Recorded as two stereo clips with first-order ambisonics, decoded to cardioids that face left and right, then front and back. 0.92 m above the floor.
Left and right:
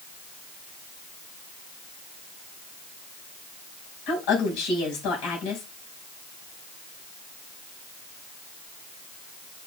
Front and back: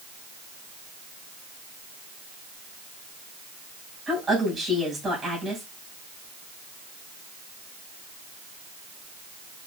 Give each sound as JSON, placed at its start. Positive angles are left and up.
{"t": 4.1, "sound": "a woman speaking", "azimuth_deg": 100, "distance_m": 5.0}